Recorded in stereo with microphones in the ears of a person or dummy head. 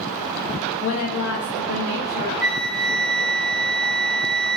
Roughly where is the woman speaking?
Left.